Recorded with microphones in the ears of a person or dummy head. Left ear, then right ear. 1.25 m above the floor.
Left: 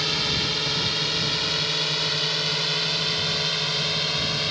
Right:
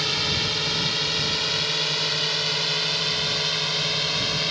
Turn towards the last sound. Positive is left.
turn(degrees=-10)  # may be behind; listen again after turning